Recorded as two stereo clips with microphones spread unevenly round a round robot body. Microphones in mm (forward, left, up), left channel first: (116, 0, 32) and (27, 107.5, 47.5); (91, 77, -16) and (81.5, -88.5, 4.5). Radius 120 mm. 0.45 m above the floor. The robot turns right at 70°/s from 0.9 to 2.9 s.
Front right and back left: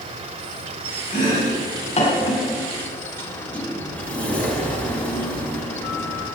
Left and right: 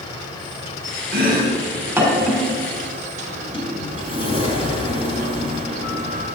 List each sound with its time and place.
0.0 s an insect: 115° left, 1.2 m; by 6.3 s 105° right, 1.2 m
1.1 s chopping: 75° right, 4.5 m; by 2.4 s 20° left, 4.5 m
3.3 s a sliding door: 30° left, 4 m